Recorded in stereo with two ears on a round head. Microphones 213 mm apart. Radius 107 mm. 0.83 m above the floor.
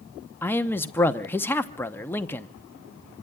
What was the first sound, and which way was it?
A man speaking, 10° left (ahead or behind).